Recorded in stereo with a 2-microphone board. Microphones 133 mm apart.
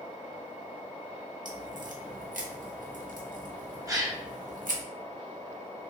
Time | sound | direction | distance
1.4 | a crack | 80° right | 0.7 m
3.9 | a gasp | 25° right (ahead or behind) | 0.6 m